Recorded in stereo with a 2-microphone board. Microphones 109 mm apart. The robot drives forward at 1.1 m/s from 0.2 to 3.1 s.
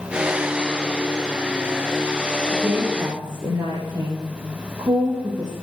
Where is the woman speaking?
45° right (ahead or behind), 3.5 m; by 5.5 s 35° right (ahead or behind), 4 m.